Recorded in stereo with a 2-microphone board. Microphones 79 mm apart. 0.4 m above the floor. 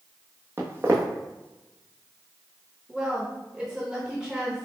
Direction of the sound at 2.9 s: 10° right (ahead or behind).